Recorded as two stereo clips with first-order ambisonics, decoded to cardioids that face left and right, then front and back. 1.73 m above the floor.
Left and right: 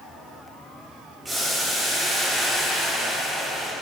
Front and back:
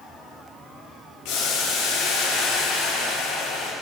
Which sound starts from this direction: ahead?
Boiling, at 1.2 s.